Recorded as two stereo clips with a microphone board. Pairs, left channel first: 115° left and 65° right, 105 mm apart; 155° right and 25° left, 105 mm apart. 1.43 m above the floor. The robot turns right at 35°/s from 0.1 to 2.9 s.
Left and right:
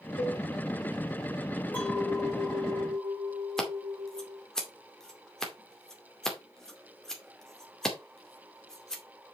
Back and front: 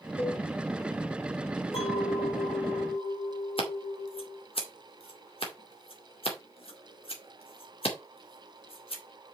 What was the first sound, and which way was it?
A cowbell, 140° left.